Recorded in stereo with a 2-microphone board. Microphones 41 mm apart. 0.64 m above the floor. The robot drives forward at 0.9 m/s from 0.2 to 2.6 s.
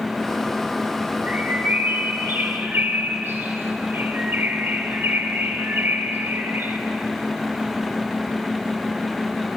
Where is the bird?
40° right (ahead or behind), 1.5 m; by 6.8 s 65° right (ahead or behind), 1.0 m.